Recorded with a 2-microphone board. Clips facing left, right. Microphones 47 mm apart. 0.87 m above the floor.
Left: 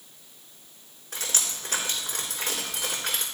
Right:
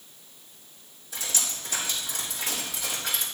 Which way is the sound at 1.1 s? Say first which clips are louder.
Left 1 dB; 60° left (ahead or behind).